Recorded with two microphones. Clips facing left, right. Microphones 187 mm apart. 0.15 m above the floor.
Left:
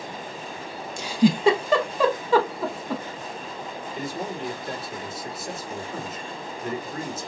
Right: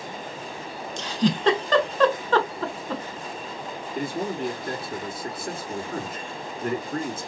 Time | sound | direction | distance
1.0 | a giggle | 10° left (ahead or behind) | 0.7 m
4.0 | a man speaking | 55° right (ahead or behind) | 2.5 m